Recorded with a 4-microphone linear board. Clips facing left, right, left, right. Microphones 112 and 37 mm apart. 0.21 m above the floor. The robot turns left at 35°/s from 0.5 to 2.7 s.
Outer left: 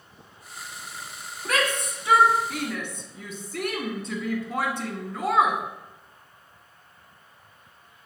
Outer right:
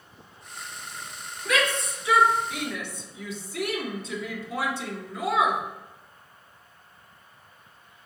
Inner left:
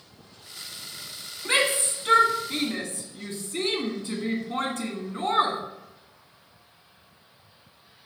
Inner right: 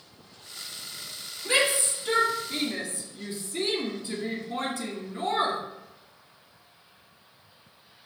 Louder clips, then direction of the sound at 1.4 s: Even, inner left 1 dB; 45° left (ahead or behind).